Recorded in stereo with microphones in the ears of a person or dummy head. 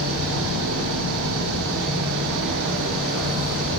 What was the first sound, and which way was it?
An engine running, 75° right (ahead or behind).